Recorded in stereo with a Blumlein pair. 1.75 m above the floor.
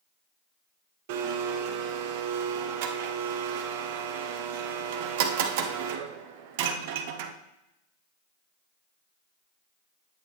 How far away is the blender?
About 0.8 m.